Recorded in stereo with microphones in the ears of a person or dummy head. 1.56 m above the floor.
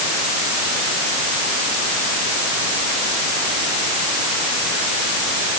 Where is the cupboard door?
No cupboard door in this recording.